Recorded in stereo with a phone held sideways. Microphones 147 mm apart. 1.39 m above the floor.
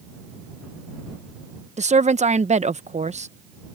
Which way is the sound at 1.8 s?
50° right (ahead or behind).